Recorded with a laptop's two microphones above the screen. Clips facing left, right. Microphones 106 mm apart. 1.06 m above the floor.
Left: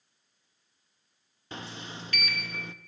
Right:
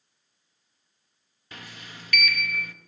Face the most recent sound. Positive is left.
turn(degrees=30)  # may be behind; listen again after turning